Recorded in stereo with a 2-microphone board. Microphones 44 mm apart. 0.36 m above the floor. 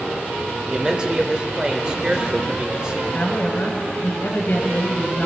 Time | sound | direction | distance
0.7 | a man speaking | 20° right (ahead or behind) | 0.8 m
3.1 | a woman speaking | 50° left (ahead or behind) | 2.0 m